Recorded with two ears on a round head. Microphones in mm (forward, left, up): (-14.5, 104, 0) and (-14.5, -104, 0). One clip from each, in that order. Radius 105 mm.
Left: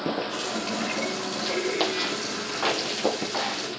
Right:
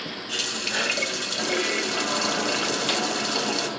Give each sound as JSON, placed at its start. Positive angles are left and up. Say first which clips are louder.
{"t": 0.3, "sound": "a running tap", "louder": "right 3 dB", "side_deg": -50, "distance_m": 3.5}